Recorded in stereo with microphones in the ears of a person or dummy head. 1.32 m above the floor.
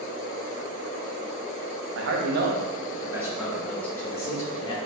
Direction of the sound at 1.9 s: 70° right (ahead or behind).